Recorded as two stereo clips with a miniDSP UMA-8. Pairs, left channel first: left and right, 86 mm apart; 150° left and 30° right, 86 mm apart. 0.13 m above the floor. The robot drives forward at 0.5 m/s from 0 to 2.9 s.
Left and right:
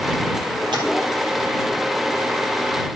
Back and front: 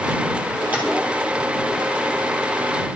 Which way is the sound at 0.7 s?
100° right.